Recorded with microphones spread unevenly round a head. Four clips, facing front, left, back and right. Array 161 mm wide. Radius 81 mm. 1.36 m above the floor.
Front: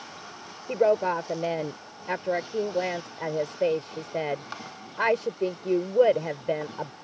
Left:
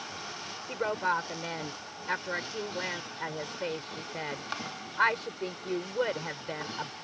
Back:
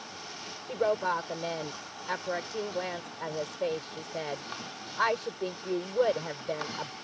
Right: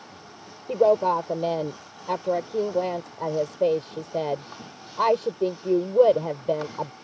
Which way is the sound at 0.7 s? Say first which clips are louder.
Right 11 dB, front 6 dB; 60° right.